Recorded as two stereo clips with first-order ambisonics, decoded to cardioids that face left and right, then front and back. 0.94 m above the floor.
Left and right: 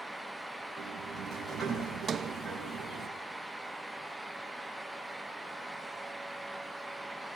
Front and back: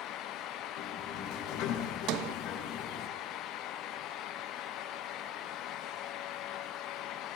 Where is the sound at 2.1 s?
155° right, 0.5 m.